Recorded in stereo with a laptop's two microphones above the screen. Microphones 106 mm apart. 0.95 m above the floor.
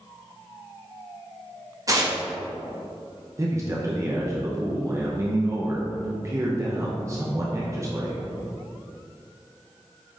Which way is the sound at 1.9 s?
35° right (ahead or behind).